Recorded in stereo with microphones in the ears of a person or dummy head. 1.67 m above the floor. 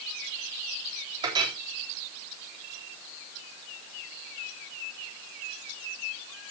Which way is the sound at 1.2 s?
20° right (ahead or behind).